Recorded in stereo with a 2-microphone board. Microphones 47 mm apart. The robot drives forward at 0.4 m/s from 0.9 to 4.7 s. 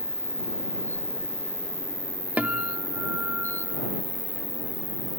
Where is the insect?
45° left (ahead or behind), 3.5 m; by 5.2 s 30° left (ahead or behind), 4.5 m.